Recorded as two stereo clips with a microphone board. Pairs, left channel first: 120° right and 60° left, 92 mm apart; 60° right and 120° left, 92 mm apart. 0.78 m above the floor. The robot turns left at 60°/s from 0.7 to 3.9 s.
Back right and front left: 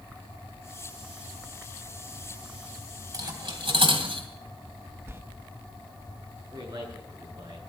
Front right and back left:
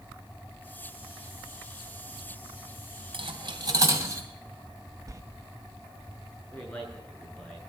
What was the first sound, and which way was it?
Cutlery clinking, 110° left.